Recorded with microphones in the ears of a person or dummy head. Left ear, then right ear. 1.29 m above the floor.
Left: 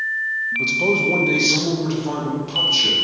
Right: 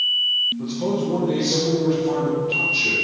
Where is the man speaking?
40° left (ahead or behind), 0.6 m; by 3.0 s 55° left (ahead or behind), 1.8 m.